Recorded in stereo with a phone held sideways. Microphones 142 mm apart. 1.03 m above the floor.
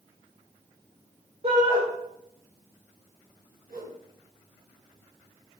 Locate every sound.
1.4 s a shout: 50° right (ahead or behind), 5 m
3.7 s a whoosh: 85° right, 6.5 m